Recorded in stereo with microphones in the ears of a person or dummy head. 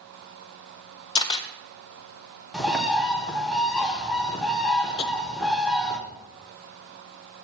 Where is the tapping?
30° left (ahead or behind), 0.9 m.